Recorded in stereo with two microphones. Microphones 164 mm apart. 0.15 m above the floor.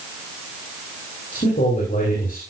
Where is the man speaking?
60° left (ahead or behind), 5 m.